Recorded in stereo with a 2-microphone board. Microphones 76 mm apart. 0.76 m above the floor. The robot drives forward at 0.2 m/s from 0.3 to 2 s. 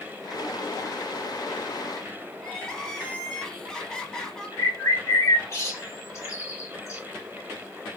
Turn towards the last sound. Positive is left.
turn(degrees=40)  # may be behind; listen again after turning